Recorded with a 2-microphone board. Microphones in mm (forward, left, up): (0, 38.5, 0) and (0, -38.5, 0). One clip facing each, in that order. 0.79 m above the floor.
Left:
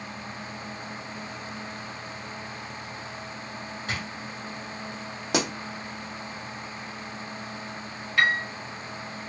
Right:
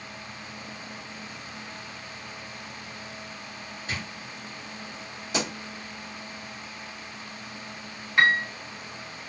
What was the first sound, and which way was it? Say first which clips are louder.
A drawer: left 1 dB; 70° left (ahead or behind).